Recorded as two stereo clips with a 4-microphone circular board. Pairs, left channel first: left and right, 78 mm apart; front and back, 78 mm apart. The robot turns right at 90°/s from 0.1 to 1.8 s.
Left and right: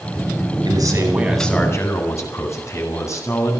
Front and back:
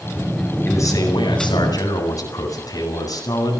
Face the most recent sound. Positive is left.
turn(degrees=40)